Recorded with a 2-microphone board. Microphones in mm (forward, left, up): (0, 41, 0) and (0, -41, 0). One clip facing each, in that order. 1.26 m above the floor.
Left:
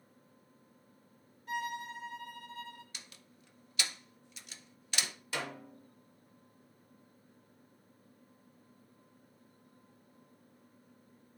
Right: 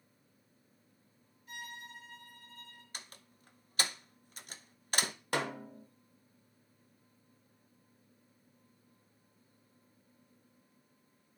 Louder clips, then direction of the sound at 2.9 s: Right 3 dB; 40° right (ahead or behind).